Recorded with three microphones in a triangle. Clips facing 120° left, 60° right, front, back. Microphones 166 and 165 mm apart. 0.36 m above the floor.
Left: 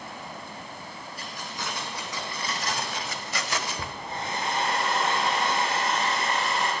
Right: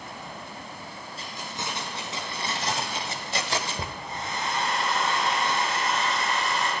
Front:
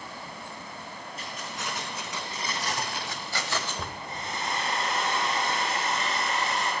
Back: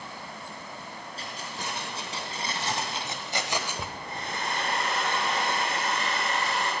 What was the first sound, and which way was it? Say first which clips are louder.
Keys jangling: right 1 dB, even; 125° right.